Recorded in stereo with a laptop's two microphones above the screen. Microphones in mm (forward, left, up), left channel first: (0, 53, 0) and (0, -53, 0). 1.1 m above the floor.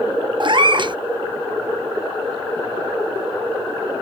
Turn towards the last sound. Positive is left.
turn(degrees=-50)  # may be behind; listen again after turning